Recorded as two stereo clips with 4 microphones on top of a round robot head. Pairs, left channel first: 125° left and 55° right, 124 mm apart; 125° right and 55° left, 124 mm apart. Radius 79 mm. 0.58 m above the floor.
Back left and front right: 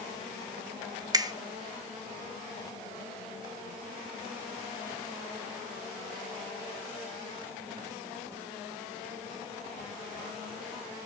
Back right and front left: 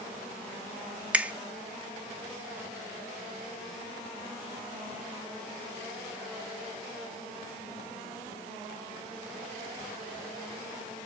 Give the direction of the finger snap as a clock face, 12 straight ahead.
1 o'clock.